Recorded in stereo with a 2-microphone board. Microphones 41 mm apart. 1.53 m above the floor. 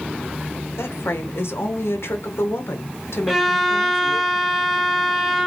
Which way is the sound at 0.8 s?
80° left.